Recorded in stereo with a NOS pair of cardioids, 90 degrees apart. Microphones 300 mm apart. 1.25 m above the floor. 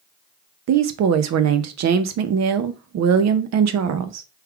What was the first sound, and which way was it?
A woman speaking, 60° right.